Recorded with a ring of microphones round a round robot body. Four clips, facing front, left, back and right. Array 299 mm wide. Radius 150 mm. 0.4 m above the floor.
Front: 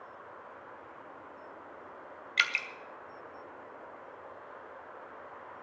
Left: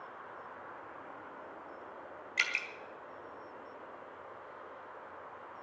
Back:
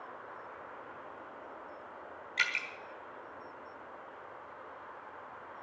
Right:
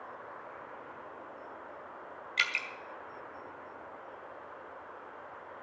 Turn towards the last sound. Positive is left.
turn(degrees=-15)